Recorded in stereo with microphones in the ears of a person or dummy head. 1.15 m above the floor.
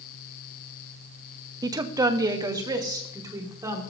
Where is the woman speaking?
20° right (ahead or behind), 0.8 m.